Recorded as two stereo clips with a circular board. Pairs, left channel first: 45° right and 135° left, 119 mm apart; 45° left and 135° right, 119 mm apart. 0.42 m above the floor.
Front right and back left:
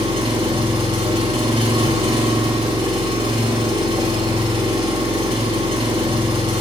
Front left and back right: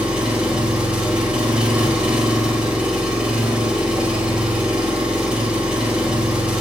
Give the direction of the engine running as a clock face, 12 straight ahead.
7 o'clock.